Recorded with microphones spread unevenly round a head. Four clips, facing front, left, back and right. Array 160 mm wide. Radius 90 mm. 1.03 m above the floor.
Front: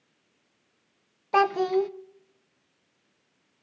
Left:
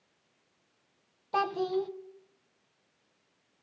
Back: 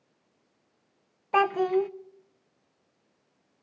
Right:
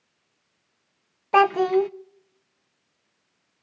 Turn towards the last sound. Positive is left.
turn(degrees=-65)